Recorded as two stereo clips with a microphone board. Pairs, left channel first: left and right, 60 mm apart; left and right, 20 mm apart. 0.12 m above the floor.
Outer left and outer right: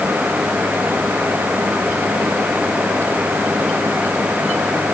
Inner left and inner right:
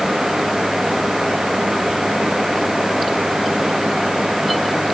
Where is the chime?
I don't hear a chime.